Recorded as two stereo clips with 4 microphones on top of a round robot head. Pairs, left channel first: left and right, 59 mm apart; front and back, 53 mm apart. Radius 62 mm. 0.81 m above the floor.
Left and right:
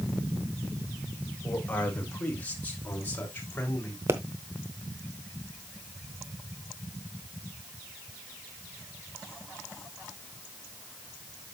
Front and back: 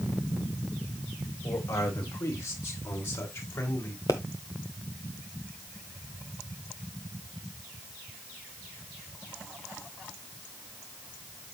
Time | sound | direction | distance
1.4 | a man speaking | 25° left | 2.5 m
4.1 | a pop | 50° right | 0.8 m